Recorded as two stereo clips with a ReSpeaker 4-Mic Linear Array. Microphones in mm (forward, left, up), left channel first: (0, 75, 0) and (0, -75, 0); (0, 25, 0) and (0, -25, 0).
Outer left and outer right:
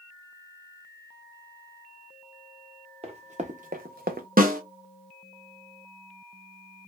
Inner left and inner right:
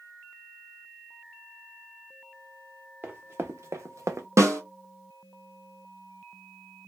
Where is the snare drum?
75° right (ahead or behind), 0.9 m.